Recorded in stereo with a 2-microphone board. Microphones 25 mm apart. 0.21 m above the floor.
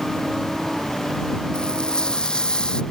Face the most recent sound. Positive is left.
turn(degrees=40)  # may be behind; listen again after turning